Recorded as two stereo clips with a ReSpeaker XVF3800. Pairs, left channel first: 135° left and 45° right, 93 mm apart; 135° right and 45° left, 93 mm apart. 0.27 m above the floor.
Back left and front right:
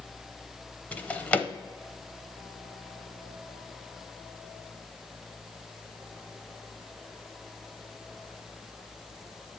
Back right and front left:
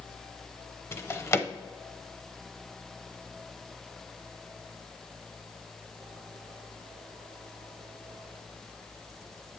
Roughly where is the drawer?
Behind.